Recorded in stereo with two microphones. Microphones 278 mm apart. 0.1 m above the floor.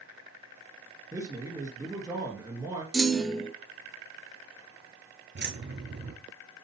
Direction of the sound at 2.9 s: Centre (ahead or behind).